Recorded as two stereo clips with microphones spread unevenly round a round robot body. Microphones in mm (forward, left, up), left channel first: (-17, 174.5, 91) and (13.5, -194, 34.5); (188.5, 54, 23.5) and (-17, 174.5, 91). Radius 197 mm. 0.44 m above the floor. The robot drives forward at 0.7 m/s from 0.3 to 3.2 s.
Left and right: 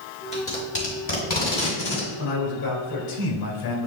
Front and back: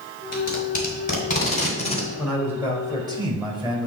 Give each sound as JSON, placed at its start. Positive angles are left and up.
{"t": 0.3, "sound": "tape being pulled", "azimuth_deg": 20, "distance_m": 3.0}
{"t": 2.2, "sound": "a man speaking", "azimuth_deg": 55, "distance_m": 3.0}